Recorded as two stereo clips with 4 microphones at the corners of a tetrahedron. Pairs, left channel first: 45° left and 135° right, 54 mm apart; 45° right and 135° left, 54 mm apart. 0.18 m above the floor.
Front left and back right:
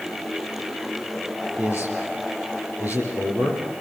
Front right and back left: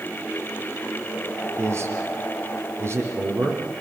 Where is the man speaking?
175° left, 7 m.